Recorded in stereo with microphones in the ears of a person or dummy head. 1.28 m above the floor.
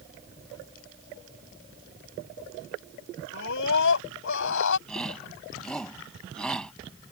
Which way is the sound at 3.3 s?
65° left (ahead or behind).